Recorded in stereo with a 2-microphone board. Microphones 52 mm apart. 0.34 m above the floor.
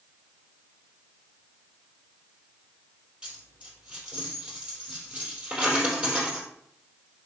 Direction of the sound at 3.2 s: 20° right (ahead or behind).